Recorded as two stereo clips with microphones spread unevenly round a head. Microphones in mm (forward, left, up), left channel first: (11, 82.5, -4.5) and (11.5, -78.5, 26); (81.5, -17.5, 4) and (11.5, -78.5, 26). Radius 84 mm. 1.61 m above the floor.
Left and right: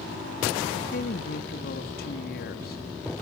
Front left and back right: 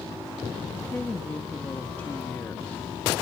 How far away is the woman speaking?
About 3.5 m.